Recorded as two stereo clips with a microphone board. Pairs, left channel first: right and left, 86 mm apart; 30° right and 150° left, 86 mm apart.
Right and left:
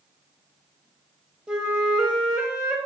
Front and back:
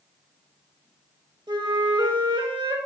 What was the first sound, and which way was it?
A flute, 170° left.